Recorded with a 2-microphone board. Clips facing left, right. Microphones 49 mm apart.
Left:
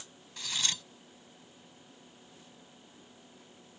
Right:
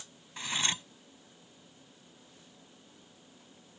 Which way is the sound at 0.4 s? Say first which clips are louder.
Right 3 dB; 25° right (ahead or behind).